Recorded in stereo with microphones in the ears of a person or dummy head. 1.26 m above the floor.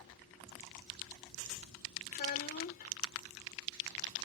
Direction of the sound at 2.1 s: 45° left (ahead or behind).